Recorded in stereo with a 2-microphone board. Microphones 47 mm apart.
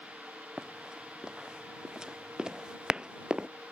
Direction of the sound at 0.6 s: 10° right (ahead or behind).